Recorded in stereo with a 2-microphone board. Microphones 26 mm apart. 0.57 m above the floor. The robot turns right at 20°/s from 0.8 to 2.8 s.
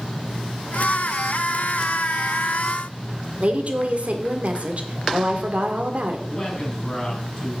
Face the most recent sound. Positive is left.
turn(degrees=30)  # may be behind; listen again after turning